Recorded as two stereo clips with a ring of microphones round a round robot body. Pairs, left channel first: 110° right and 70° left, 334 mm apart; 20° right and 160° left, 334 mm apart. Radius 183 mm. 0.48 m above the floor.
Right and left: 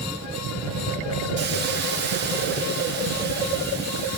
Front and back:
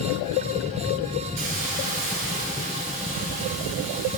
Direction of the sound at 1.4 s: 130° left.